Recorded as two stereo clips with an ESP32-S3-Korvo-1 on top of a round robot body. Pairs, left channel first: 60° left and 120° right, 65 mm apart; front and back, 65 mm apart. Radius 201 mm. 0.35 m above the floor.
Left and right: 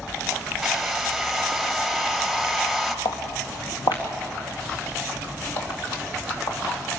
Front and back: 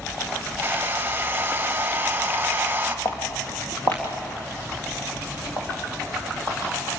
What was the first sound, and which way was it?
A hair dryer, 150° left.